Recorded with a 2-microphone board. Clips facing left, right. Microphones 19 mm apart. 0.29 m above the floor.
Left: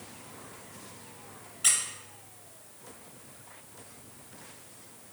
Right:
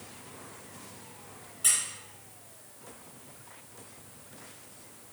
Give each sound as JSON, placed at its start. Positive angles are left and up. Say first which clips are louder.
{"t": 1.6, "sound": "a squeak", "louder": "left 1 dB", "side_deg": 25, "distance_m": 0.8}